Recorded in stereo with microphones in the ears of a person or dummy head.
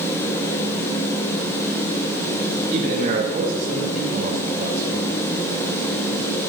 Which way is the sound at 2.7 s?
50° right (ahead or behind).